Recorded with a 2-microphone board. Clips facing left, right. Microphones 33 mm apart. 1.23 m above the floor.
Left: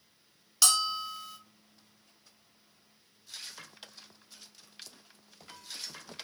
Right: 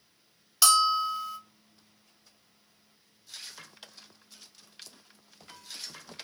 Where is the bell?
10° right (ahead or behind), 1.2 m.